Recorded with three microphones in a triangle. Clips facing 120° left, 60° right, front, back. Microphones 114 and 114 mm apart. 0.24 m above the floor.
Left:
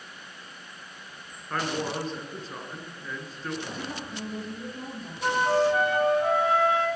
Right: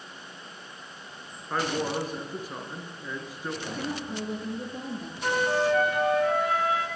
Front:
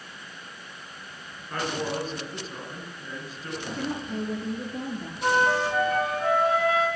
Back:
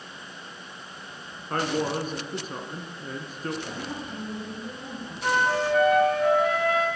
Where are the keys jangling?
No keys jangling in this recording.